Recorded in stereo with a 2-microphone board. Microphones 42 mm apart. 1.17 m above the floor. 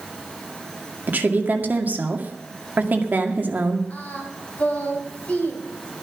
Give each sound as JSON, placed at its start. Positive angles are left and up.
{"t": 1.1, "sound": "a woman speaking", "side_deg": -45, "distance_m": 2.0}
{"t": 3.9, "sound": "singing", "side_deg": 35, "distance_m": 3.0}